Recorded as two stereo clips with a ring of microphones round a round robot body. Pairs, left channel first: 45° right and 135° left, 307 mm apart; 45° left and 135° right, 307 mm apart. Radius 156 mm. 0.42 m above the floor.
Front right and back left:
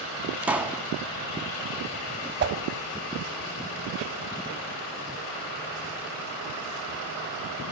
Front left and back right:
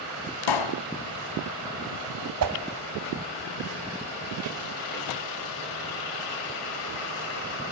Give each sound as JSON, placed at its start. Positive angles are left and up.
{"t": 0.4, "sound": "a pop", "azimuth_deg": 50, "distance_m": 1.6}
{"t": 2.4, "sound": "a whoosh", "azimuth_deg": -170, "distance_m": 2.5}